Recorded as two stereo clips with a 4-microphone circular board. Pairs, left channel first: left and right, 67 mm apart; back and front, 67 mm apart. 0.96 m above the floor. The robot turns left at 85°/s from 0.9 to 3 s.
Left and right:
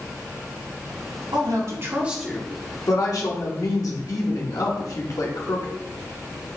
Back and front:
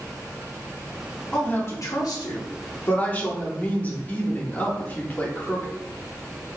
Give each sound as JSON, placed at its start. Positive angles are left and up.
{"t": 1.3, "sound": "a woman speaking", "azimuth_deg": -100, "distance_m": 2.0}